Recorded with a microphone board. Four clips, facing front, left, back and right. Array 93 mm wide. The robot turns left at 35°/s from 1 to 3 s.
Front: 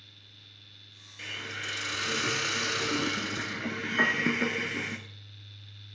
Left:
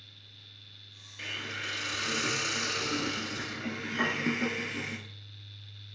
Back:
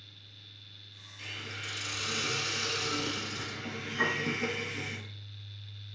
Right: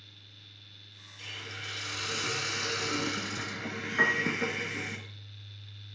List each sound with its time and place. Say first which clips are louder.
1.2 s a hiss: left 5 dB, front 4 dB; 55° left, 0.6 m; by 5.0 s 5° right, 0.6 m
4.0 s a piano: right 2 dB, front 4 dB; 40° right, 1.1 m